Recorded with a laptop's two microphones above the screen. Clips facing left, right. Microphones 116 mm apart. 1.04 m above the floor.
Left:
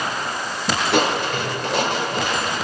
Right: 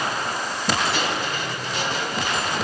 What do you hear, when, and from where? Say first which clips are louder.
0.9 s crushing: left 6 dB; 70° left (ahead or behind), 3 m